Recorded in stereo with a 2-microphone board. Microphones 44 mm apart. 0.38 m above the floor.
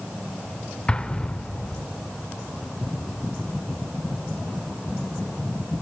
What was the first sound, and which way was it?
An explosion, 20° left (ahead or behind).